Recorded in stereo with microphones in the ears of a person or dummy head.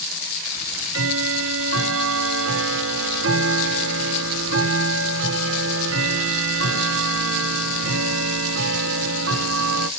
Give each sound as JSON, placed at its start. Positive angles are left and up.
{"t": 0.6, "sound": "ticking", "side_deg": -75, "distance_m": 1.1}